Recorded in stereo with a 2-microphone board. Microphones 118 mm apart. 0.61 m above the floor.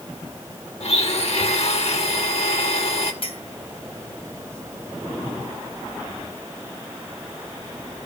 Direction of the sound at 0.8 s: 60° left (ahead or behind).